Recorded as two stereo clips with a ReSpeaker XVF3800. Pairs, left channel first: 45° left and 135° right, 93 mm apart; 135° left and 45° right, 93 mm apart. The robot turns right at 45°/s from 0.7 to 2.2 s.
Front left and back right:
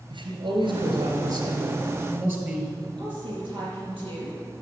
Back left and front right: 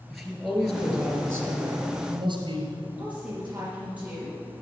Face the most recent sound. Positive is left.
turn(degrees=-120)